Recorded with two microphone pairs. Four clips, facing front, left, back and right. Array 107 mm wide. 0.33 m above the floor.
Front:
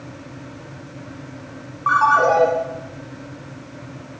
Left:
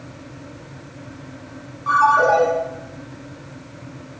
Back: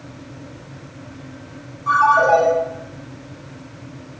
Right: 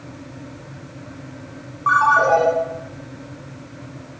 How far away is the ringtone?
About 1.6 m.